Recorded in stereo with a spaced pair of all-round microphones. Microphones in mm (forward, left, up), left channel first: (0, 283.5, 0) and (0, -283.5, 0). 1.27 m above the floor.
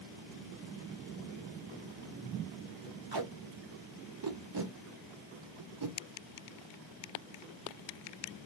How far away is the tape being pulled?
About 0.6 m.